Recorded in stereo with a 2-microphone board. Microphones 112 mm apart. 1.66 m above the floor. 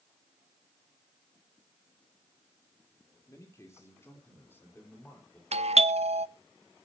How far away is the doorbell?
About 0.6 m.